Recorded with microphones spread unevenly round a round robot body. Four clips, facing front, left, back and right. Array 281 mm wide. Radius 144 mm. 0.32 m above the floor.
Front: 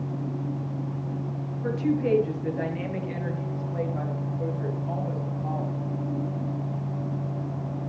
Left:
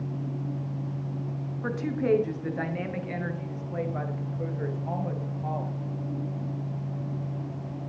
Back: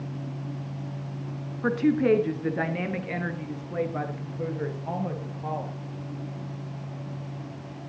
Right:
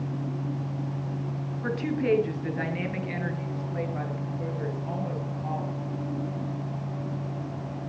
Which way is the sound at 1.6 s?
Straight behind.